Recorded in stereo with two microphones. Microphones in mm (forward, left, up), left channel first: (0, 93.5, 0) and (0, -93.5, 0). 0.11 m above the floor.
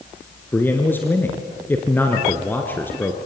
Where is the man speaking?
10° left (ahead or behind), 1.8 m.